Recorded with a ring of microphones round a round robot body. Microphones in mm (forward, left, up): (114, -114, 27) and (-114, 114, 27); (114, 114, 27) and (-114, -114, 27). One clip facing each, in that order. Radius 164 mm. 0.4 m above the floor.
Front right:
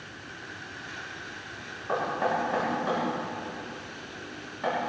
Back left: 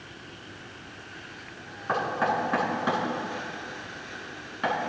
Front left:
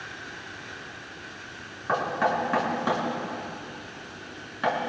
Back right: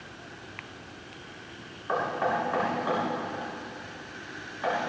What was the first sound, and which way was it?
Knocking, 80° left.